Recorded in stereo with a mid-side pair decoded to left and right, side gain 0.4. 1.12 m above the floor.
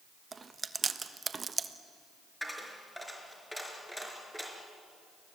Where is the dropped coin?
5° left, 4.5 m.